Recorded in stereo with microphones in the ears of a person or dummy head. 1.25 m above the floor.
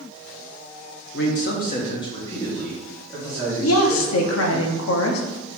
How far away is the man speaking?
About 0.8 m.